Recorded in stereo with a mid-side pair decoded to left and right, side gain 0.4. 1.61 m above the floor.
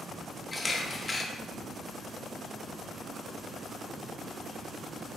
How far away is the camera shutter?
About 0.7 m.